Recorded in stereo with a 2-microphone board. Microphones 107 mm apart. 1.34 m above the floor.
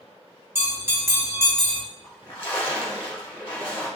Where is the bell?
20° right (ahead or behind), 1.1 m.